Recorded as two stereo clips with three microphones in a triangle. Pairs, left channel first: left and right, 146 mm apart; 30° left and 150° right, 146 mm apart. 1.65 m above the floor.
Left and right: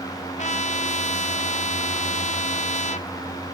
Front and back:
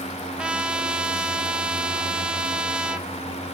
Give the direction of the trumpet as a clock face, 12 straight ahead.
8 o'clock.